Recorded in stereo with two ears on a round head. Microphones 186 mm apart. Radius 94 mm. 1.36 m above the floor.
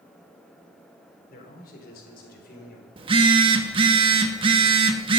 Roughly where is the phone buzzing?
Right.